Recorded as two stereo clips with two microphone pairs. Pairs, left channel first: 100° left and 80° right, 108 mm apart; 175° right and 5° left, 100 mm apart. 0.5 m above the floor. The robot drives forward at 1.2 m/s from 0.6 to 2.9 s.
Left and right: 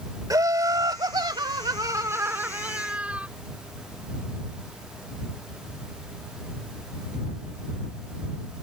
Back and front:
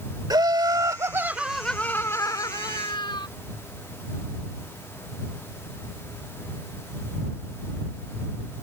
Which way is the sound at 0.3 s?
30° right.